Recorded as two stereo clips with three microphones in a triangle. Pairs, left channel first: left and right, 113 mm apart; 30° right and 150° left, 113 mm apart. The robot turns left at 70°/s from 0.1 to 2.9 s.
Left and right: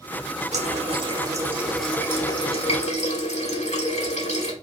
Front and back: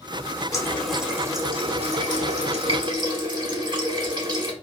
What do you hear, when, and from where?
0.5 s a running tap: 90° right, 1.2 m; by 4.5 s 100° left, 1.2 m